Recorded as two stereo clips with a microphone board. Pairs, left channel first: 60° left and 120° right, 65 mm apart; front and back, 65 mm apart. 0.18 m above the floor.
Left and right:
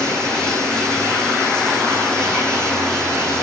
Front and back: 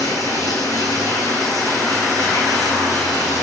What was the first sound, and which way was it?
Running water, 15° right.